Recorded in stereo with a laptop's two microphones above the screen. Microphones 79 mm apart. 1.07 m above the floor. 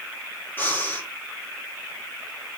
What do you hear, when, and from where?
0.6 s breathing: 30° left (ahead or behind), 4 m